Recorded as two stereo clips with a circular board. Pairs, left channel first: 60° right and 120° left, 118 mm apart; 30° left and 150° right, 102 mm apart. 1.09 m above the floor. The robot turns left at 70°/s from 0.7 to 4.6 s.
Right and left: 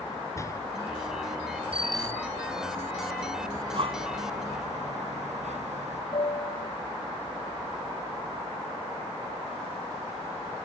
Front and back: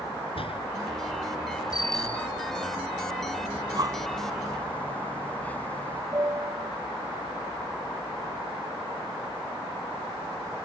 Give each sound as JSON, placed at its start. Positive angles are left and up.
{"t": 0.3, "sound": "a door slam", "azimuth_deg": 5}
{"t": 1.7, "sound": "a bicycle bell", "azimuth_deg": 85}
{"t": 3.5, "sound": "breathing", "azimuth_deg": 180}
{"t": 6.1, "sound": "a piano", "azimuth_deg": -90}